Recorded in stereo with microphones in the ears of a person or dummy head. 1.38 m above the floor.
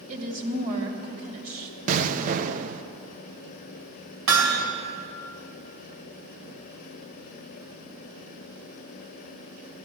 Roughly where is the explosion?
Right.